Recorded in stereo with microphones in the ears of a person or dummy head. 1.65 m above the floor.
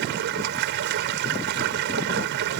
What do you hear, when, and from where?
0.0 s running water: 65° right (ahead or behind)